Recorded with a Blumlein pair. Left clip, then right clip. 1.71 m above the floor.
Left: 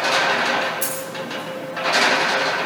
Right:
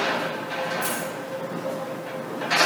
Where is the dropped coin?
30° left, 7.5 m.